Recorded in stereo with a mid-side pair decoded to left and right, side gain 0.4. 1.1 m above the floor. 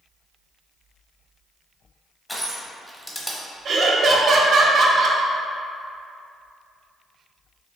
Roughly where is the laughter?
Ahead right.